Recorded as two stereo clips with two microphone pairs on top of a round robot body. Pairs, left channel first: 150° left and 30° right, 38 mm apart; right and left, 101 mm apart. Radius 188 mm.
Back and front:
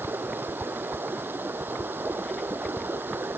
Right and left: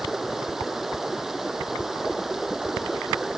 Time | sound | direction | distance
0.0 | running water | 5° left | ?